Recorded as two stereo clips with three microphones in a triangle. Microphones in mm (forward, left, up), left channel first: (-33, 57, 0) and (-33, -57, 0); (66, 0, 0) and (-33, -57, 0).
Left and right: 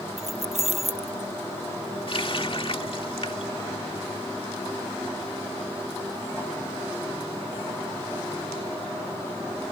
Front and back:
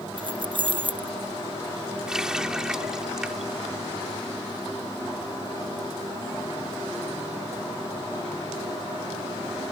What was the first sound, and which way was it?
Keys jangling, 105° right.